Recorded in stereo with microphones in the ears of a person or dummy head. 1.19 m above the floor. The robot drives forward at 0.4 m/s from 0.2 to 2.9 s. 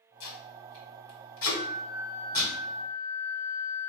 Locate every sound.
0.2 s tape being pulled: 70° left (ahead or behind), 1.9 m; by 2.5 s 65° left (ahead or behind), 1.9 m
1.5 s a flute: 20° right (ahead or behind), 1.2 m; by 3.9 s 35° right (ahead or behind), 0.7 m